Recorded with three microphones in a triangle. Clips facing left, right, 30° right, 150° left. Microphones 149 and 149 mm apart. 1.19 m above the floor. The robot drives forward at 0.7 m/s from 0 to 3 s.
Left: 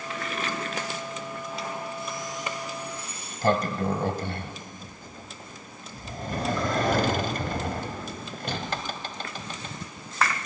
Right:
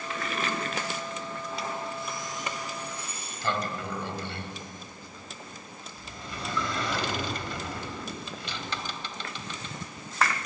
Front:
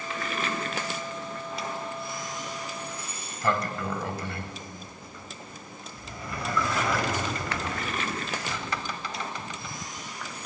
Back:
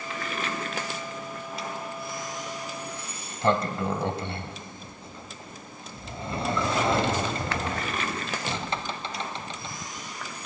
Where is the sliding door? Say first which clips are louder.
Left 2 dB, back 1 dB; 95° left, 1.3 m.